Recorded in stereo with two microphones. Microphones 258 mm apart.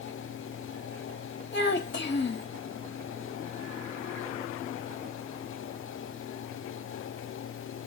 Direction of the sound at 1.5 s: 45° left (ahead or behind).